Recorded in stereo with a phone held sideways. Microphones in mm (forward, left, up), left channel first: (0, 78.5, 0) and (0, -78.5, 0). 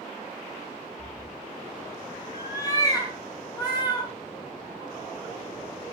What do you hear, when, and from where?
1.0 s a cat meowing: 10° left (ahead or behind), 5 m; by 4.1 s 30° left (ahead or behind), 7 m